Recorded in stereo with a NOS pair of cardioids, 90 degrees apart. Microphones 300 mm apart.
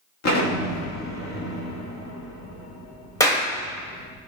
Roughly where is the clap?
Ahead.